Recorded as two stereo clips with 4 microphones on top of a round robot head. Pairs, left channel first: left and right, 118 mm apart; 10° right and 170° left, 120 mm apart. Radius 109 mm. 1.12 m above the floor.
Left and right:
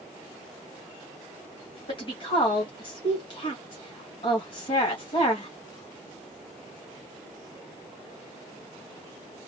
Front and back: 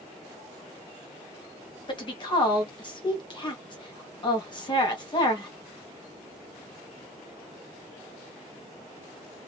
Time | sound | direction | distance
1.9 | a woman speaking | 40° left | 2 m